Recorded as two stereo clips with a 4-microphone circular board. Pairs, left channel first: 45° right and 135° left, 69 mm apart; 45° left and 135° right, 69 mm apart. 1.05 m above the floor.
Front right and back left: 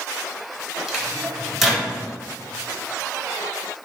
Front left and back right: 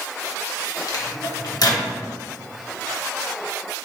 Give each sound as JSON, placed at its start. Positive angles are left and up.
{"t": 0.9, "sound": "a microwave", "azimuth_deg": 50, "distance_m": 0.8}